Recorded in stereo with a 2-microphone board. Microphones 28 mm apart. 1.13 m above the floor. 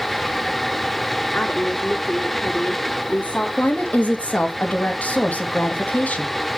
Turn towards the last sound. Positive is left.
turn(degrees=75)  # may be behind; listen again after turning